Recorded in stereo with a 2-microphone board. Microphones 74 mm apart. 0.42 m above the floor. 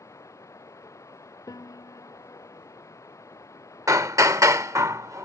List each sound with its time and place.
0.0 s running water: 45° left (ahead or behind)
1.5 s a piano: 60° left (ahead or behind)
3.9 s hammering: 45° right (ahead or behind)